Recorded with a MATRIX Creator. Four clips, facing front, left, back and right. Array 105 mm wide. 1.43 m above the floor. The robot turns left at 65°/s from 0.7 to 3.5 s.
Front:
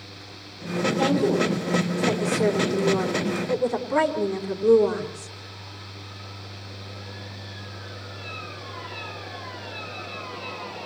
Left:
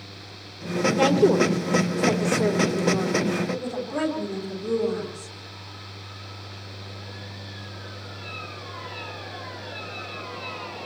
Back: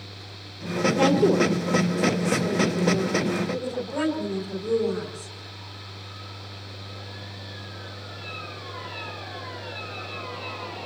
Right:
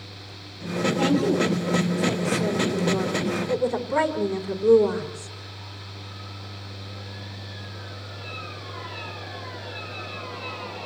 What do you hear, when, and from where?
1.0 s a woman speaking: 140° left, 4.5 m; by 5.3 s 25° right, 4.5 m